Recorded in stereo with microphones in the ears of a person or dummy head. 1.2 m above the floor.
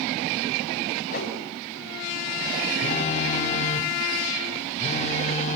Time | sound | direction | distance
1.1 | a whoosh | 40° left (ahead or behind) | 6.5 m
2.8 | a phone buzzing | 35° left (ahead or behind) | 1.4 m